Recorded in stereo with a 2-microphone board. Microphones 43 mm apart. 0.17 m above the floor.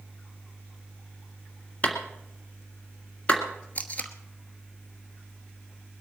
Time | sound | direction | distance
1.8 | a clap | 30° left (ahead or behind) | 1.9 m
3.8 | tape being pulled | 35° left (ahead or behind) | 1.1 m